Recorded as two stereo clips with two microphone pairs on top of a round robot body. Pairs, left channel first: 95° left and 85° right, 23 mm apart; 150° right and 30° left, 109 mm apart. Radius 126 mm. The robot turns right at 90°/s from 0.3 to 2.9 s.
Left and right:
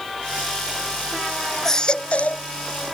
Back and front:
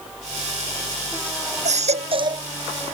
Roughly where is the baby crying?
Ahead.